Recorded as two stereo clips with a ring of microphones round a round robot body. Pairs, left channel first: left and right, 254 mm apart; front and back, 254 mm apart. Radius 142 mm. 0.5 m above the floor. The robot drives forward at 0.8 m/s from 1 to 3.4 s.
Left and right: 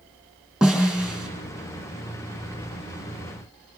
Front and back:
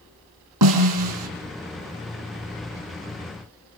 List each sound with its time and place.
0.6 s a snare drum: straight behind, 4 m